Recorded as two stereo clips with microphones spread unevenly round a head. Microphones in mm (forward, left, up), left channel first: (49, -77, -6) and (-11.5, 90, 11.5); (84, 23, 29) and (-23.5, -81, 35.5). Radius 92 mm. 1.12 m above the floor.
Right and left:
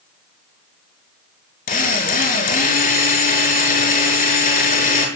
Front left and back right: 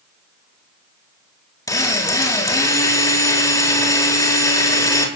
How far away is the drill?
About 7 m.